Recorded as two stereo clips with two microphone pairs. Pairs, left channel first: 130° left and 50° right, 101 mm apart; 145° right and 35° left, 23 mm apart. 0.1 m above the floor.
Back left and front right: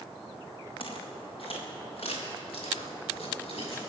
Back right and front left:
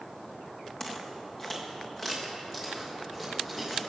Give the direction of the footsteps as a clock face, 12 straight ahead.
7 o'clock.